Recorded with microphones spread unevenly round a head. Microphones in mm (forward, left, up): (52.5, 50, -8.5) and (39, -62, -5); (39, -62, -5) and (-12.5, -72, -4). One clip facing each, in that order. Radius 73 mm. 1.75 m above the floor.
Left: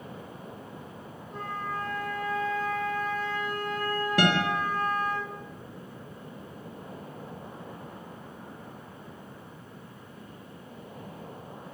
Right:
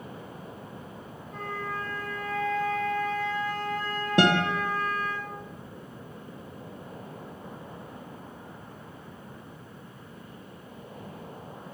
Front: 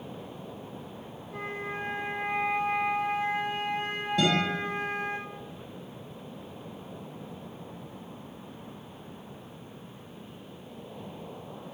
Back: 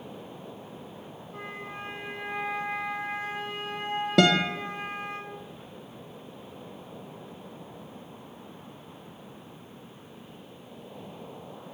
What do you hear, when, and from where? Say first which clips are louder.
1.3 s a flute: even, front 4 dB; 15° left, 3.5 m
4.2 s a guitar: right 3 dB, back 5 dB; 170° right, 0.6 m